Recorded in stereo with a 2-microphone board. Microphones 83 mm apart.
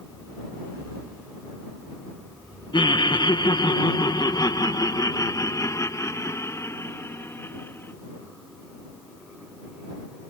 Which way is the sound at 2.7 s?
80° left.